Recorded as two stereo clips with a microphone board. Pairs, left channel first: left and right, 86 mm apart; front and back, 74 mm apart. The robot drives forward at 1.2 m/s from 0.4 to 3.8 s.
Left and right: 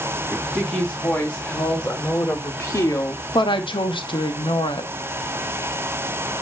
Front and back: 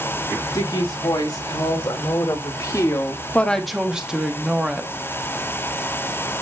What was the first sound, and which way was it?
A woman speaking, 15° left.